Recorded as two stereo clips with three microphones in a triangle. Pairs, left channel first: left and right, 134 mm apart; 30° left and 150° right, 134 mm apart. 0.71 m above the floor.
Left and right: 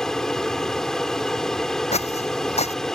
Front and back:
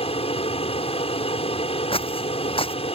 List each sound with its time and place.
0.0 s an aircraft: 5° left
1.9 s footsteps: 65° left